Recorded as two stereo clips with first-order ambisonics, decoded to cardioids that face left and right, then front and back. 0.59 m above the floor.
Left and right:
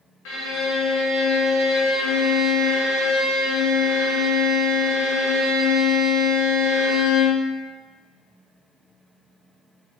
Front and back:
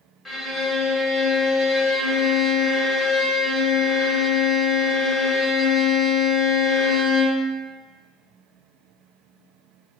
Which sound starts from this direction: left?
A violin, at 0.2 s.